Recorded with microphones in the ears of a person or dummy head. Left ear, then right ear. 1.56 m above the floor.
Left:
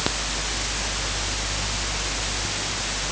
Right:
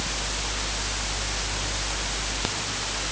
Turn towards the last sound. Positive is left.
No sound to turn to.